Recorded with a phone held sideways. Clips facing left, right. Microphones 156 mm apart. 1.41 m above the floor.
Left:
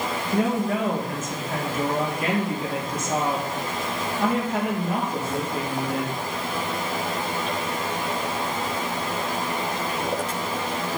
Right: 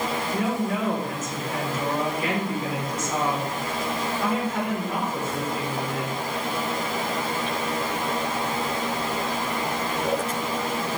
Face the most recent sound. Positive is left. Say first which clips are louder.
# left 5 dB
turn(degrees=55)  # may be behind; listen again after turning